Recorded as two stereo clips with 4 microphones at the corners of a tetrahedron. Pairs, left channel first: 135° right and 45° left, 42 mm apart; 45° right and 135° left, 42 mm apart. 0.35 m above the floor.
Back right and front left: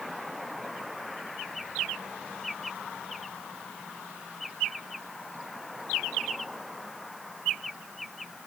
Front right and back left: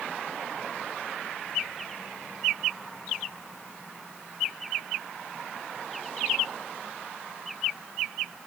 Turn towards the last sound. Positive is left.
No sound to turn to.